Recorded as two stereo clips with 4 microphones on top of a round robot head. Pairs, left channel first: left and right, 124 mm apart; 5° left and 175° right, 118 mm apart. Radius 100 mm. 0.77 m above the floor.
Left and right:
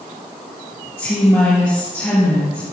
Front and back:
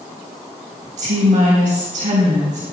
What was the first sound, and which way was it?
A woman speaking, 165° left.